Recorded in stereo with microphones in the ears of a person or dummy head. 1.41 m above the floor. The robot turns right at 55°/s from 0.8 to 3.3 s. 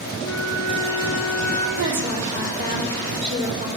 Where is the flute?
95° left, 3 m; by 1.7 s 140° left, 3 m.